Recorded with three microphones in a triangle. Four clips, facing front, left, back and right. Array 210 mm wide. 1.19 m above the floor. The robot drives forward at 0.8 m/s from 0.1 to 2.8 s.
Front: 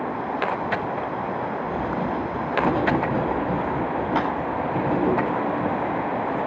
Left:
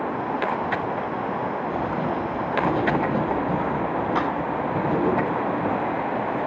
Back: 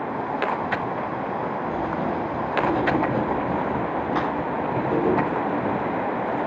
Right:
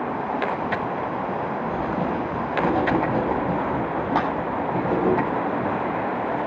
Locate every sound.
1.6 s writing: 65° right, 6 m; by 5.2 s 70° right, 5.5 m
4.2 s a clap: 70° right, 9 m